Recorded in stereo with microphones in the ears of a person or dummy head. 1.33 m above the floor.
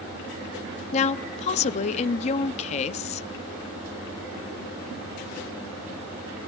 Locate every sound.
0.9 s a woman speaking: 40° left (ahead or behind), 0.5 m